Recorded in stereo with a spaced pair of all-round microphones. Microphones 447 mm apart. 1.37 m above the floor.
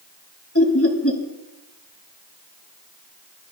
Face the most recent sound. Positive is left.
turn(degrees=30)  # may be behind; listen again after turning